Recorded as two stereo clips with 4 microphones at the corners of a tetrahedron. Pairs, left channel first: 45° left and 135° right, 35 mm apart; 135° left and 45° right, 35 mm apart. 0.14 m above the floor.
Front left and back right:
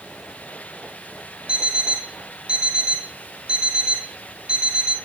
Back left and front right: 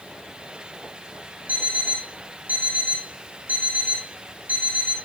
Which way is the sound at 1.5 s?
75° right.